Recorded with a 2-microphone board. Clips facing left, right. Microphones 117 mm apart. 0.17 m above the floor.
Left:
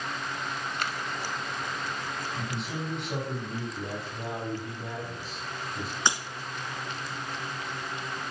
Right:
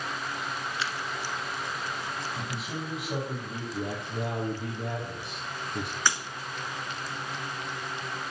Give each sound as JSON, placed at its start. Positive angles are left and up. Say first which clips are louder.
{"t": 0.8, "sound": "scissors", "louder": "even", "side_deg": 55, "distance_m": 0.9}
{"t": 2.4, "sound": "a man speaking", "louder": "left 1 dB", "side_deg": -5, "distance_m": 6.0}
{"t": 3.7, "sound": "a man speaking", "louder": "right 3 dB", "side_deg": -60, "distance_m": 3.0}
{"t": 6.1, "sound": "breaking glass", "louder": "left 1 dB", "side_deg": 25, "distance_m": 1.1}